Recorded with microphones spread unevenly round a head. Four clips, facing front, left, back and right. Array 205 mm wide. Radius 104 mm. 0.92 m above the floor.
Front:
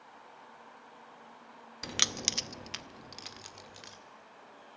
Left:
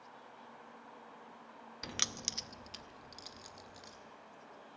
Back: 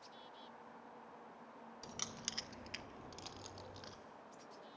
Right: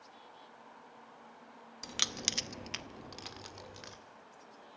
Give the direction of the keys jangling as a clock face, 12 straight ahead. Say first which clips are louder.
Right 3 dB, front 13 dB; 11 o'clock.